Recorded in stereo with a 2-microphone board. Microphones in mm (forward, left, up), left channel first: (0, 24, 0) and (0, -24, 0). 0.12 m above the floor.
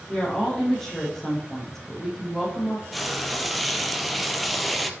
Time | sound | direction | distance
0.1 | a woman speaking | 10° left (ahead or behind) | 5 m
2.9 | frying | centre (ahead or behind) | 1.0 m